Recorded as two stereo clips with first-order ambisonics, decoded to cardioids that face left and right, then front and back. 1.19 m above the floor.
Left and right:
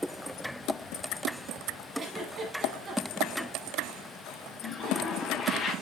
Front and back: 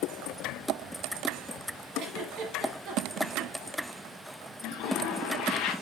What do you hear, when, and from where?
1.9 s a giggle: 150° right, 1.7 m
4.6 s a toilet flushing: 35° left, 1.3 m